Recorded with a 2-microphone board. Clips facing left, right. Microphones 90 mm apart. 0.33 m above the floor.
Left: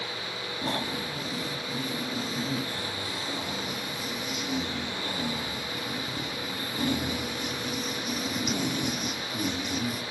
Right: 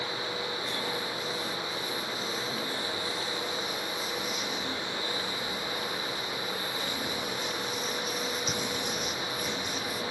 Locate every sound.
0.6 s snoring: 60° left (ahead or behind), 5.5 m